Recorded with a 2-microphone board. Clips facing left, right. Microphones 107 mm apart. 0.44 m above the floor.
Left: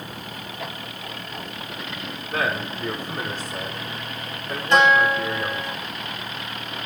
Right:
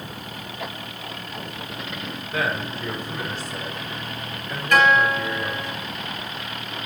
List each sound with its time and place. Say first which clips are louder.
2.3 s a man speaking: left 1 dB; 50° left (ahead or behind), 5.5 m
4.7 s a guitar: left 1 dB; 25° left (ahead or behind), 3.5 m